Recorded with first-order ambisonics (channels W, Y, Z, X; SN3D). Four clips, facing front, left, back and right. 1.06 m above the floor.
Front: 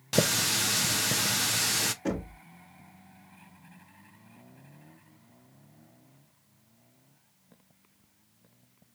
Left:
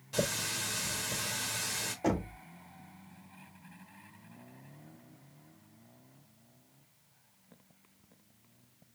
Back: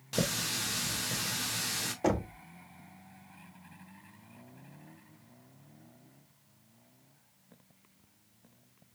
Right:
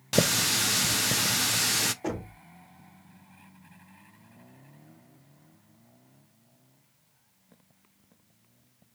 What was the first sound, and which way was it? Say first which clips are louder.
A running tap: right 9 dB, front 6 dB; 60° right.